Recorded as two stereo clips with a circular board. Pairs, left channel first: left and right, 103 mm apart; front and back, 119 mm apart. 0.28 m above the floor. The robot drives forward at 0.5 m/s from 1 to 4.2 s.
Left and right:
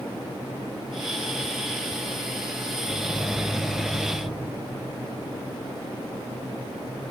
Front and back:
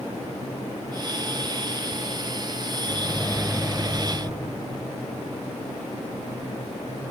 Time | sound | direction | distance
2.8 | a microwave | 10° left | 1.0 m